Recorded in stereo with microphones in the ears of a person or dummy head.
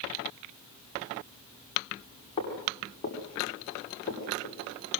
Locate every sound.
2.4 s footsteps: 25° left (ahead or behind), 9.5 m; by 4.6 s 30° left (ahead or behind), 9 m